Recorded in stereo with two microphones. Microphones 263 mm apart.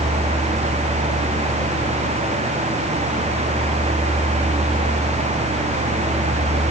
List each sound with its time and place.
Only background noise.